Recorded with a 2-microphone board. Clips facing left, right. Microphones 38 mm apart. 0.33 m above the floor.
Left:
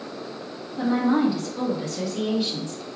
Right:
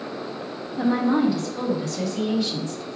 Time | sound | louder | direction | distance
0.8 | a woman speaking | even | 5° left (ahead or behind) | 1.6 m